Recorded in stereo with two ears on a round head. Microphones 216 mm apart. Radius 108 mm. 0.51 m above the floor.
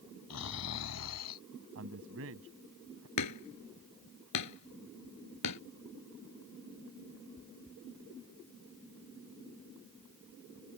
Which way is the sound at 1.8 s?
65° right (ahead or behind).